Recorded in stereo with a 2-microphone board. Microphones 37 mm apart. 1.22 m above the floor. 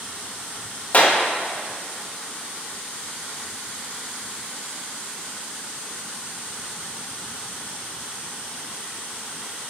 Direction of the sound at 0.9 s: 45° left (ahead or behind).